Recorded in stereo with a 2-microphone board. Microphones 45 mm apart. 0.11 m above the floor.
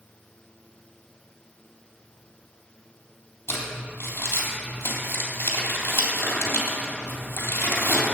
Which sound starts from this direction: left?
Crumpling, at 3.5 s.